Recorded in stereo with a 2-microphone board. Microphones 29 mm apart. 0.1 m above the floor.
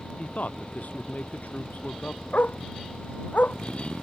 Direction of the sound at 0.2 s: 65° left (ahead or behind).